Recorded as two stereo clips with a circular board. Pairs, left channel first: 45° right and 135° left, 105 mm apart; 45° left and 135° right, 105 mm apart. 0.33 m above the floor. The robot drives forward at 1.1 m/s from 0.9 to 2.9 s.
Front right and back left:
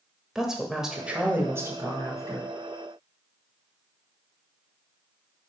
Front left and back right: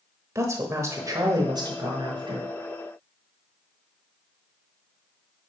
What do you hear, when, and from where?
0.3 s a woman speaking: 145° right, 1.1 m; by 2.5 s 170° right, 2.5 m